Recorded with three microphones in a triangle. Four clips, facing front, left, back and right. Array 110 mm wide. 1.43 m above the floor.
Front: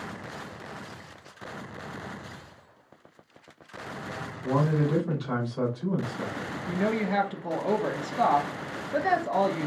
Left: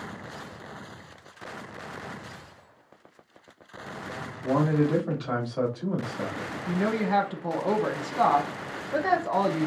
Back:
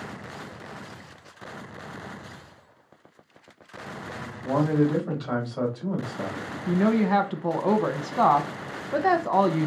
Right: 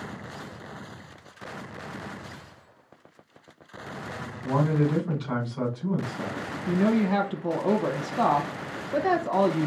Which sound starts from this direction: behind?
A woman speaking, at 6.7 s.